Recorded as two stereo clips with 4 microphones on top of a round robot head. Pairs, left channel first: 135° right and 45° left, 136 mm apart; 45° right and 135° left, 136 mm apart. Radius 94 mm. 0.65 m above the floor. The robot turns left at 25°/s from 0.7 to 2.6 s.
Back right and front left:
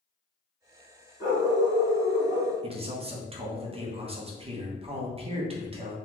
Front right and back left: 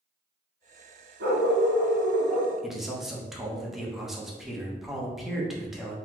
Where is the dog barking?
115° left, 1.9 m; by 2.5 s 85° left, 1.9 m.